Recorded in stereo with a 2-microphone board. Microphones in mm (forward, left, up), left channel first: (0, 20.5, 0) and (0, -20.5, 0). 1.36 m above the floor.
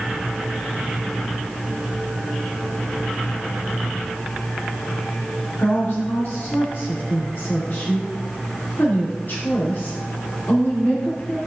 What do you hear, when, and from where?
5.6 s a woman speaking: 60° left (ahead or behind), 2.5 m